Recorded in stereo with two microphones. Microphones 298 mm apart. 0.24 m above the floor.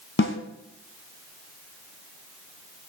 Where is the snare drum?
40° left (ahead or behind), 0.9 m.